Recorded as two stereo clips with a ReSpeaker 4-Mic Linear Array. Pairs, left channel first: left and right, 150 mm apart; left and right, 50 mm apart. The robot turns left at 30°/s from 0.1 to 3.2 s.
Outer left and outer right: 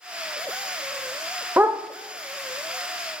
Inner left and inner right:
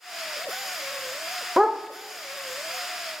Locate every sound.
1.6 s a dog barking: 10° right (ahead or behind), 0.7 m; by 1.8 s 15° right (ahead or behind), 0.7 m